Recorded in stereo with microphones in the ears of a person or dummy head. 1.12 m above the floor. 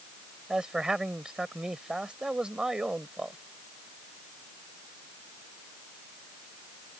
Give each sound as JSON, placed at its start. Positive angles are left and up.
{"t": 0.5, "sound": "a man speaking", "side_deg": -5}